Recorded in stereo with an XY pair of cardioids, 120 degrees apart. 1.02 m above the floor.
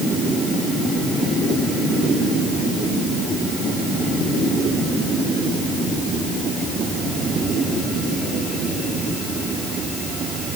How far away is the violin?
No violin in this recording.